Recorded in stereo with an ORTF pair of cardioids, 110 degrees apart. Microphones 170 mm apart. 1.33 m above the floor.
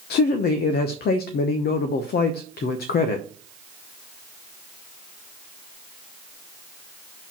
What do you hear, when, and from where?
0.1 s a man speaking: 65° left, 0.9 m